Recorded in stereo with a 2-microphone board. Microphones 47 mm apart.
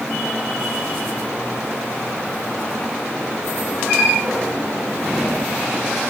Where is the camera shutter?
I don't hear a camera shutter.